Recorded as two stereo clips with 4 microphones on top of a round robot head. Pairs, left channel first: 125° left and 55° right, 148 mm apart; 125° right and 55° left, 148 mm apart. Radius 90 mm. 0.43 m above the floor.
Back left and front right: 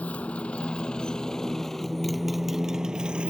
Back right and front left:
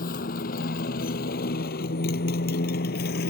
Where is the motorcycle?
155° right; by 3.3 s 135° right.